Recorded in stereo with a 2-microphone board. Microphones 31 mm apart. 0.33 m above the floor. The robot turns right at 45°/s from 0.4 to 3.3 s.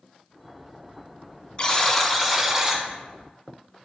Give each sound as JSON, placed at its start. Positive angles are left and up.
{"t": 1.6, "sound": "a buzzer", "azimuth_deg": 150, "distance_m": 1.3}